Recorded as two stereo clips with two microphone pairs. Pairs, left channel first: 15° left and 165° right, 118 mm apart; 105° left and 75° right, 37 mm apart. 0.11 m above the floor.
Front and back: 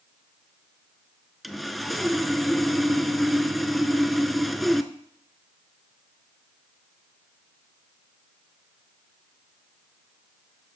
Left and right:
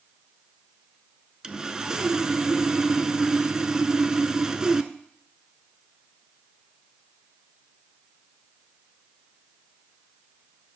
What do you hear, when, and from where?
1.4 s sawing: 60° right, 0.5 m